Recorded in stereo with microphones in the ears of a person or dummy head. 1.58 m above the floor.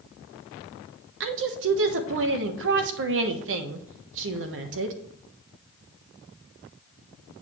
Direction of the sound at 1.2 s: 65° right (ahead or behind).